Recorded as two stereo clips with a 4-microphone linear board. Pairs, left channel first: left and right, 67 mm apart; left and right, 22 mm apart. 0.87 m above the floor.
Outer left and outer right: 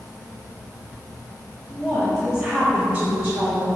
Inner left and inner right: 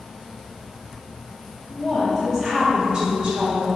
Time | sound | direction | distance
1.7 | a woman speaking | 15° left (ahead or behind) | 1.2 m